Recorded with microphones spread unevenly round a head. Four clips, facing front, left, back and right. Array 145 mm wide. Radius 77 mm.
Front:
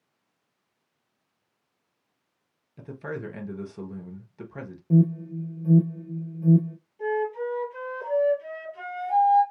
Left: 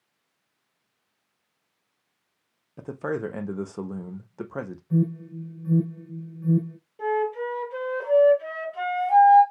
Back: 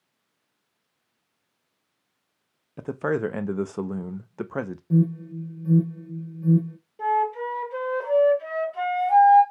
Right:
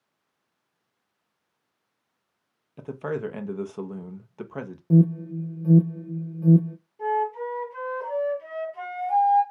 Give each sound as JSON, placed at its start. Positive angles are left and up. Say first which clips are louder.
{"t": 2.8, "sound": "a man speaking", "louder": "left 1 dB, back 10 dB", "azimuth_deg": 170, "distance_m": 0.6}
{"t": 4.9, "sound": "an alarm", "louder": "right 6 dB, front 1 dB", "azimuth_deg": -75, "distance_m": 0.6}
{"t": 7.0, "sound": "a flute", "louder": "even, back 4 dB", "azimuth_deg": 145, "distance_m": 2.5}